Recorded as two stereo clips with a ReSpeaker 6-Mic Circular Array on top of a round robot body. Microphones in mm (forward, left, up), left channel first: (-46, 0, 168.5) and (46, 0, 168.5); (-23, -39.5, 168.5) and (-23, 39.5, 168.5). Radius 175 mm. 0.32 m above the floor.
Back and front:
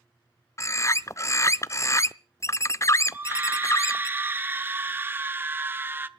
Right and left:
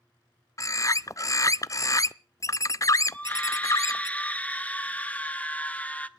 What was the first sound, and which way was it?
A bird, 130° right.